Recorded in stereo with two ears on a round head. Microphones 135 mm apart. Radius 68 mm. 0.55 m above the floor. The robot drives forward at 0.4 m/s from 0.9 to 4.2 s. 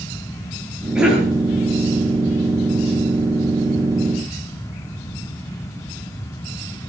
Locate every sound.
0.9 s a cough: 5° right (ahead or behind), 9.5 m